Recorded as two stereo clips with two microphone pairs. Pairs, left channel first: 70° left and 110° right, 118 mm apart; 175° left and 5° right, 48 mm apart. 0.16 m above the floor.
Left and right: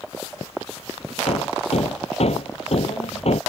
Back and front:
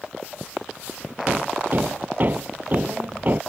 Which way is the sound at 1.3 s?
50° left.